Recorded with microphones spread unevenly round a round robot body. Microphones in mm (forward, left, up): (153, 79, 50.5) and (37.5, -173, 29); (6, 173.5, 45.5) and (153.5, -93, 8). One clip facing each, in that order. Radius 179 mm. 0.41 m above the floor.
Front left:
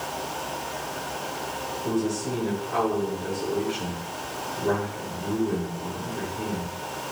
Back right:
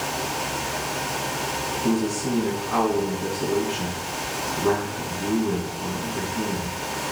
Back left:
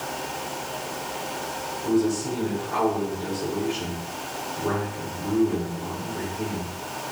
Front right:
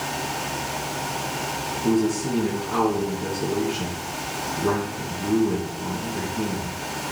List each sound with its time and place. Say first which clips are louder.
1.8 s a man speaking: back right 3 dB, front right 1 dB; 120° right, 4.5 m